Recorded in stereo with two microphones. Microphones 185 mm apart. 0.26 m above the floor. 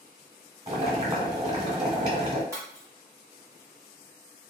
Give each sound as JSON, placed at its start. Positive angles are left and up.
{"t": 0.7, "sound": "boiling", "side_deg": -30, "distance_m": 1.2}
{"t": 2.5, "sound": "breaking glass", "side_deg": -20, "distance_m": 1.2}